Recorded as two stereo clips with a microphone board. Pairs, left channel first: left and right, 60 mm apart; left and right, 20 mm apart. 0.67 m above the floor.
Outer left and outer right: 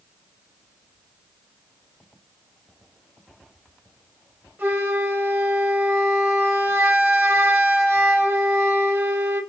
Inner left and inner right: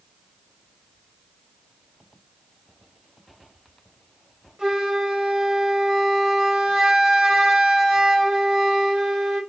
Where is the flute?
35° right (ahead or behind), 3.5 m.